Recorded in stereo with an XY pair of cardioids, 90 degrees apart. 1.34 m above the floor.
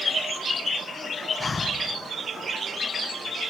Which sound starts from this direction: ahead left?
Breathing, at 1.4 s.